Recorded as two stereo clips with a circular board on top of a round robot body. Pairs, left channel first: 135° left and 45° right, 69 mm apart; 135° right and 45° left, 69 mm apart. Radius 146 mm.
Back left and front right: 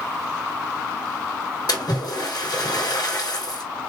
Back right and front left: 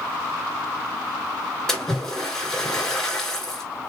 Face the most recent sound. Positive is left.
turn(degrees=145)